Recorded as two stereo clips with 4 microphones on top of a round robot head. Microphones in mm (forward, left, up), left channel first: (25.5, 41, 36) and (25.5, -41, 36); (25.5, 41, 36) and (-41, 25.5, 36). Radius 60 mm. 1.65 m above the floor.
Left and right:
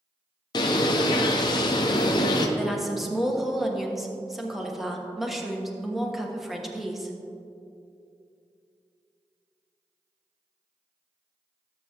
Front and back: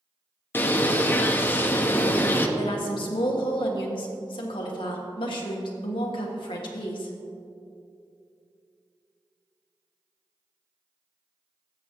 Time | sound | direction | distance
0.5 | a bird | 65° left | 0.7 m
2.6 | a woman speaking | 5° right | 1.3 m